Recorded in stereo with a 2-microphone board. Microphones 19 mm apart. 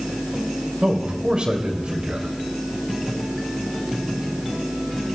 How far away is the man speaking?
About 3 m.